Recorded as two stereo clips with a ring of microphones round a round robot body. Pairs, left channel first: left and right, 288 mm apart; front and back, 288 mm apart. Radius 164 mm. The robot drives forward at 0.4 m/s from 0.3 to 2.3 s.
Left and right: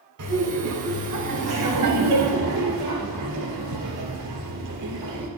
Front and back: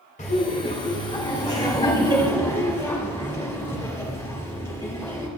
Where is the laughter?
60° right, 2.5 m; by 5.3 s 75° right, 2.5 m.